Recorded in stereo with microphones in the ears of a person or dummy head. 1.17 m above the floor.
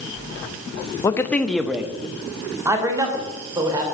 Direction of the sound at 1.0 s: 20° left (ahead or behind).